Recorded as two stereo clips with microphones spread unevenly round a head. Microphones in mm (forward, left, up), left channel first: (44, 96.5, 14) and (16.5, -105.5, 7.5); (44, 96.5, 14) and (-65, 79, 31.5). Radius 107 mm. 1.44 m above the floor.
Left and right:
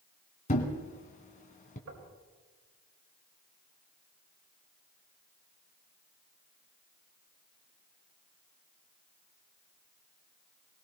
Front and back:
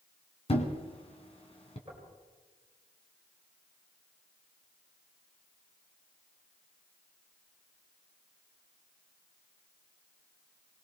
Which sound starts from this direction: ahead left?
A thud, at 0.5 s.